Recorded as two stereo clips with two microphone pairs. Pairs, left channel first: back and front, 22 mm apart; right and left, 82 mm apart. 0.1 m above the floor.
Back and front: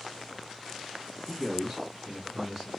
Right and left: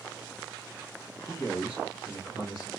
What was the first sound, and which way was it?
A man speaking, 50° right.